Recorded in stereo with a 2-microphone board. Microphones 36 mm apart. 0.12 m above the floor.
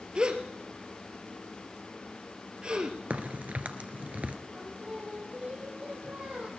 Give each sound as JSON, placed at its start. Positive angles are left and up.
{"t": 0.1, "sound": "a gasp", "side_deg": -30, "distance_m": 1.5}
{"t": 3.1, "sound": "a crack", "side_deg": -40, "distance_m": 1.1}
{"t": 4.5, "sound": "singing", "side_deg": -40, "distance_m": 2.5}